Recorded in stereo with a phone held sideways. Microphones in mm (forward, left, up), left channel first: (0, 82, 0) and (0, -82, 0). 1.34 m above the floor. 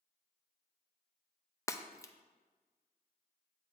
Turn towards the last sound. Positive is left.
turn(degrees=20)  # may be behind; listen again after turning